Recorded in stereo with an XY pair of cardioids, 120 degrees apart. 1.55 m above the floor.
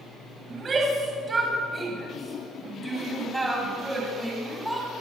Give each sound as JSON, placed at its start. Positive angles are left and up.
{"t": 0.5, "sound": "a shout", "azimuth_deg": -35, "distance_m": 8.0}